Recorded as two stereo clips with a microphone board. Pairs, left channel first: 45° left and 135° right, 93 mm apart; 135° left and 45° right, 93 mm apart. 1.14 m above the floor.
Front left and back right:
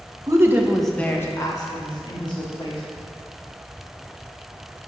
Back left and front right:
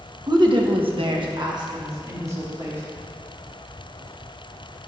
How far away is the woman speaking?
About 1.2 m.